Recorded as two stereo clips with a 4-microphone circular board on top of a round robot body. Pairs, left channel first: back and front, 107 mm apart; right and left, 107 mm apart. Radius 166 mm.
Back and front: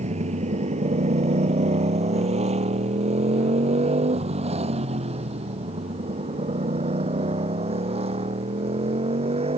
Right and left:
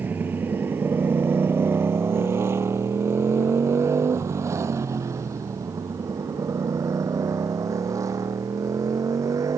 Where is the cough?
No cough in this recording.